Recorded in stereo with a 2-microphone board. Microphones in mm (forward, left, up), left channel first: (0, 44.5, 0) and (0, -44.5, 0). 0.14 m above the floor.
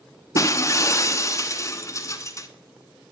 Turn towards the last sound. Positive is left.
turn(degrees=35)  # may be behind; listen again after turning